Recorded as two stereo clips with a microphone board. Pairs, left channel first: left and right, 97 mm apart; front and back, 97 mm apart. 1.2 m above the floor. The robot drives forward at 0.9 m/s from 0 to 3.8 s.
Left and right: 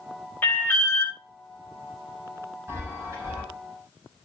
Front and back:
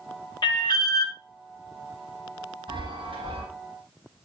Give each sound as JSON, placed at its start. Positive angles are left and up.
{"t": 0.4, "sound": "an alarm", "azimuth_deg": 25, "distance_m": 1.5}
{"t": 2.7, "sound": "a chime", "azimuth_deg": -150, "distance_m": 3.5}